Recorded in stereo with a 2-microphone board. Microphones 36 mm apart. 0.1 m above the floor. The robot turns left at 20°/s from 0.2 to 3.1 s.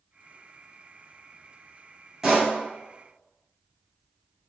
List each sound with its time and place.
2.2 s a pop: 15° right (ahead or behind), 1.4 m; by 2.5 s 10° right (ahead or behind), 1.4 m